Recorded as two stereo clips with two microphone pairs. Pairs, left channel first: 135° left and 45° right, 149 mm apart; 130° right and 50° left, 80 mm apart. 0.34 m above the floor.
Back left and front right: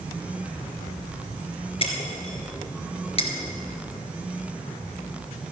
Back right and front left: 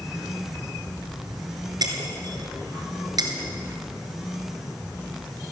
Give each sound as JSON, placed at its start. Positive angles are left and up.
{"t": 1.8, "sound": "breaking glass", "azimuth_deg": 85, "distance_m": 2.0}